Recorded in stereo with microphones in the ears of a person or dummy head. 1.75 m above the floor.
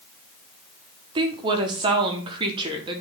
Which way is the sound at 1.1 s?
25° right (ahead or behind).